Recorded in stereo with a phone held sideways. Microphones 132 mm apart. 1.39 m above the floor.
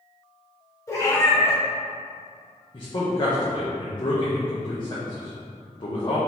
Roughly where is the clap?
No clap in this recording.